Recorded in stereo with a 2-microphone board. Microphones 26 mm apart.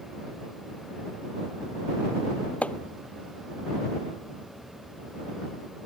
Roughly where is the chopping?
Left.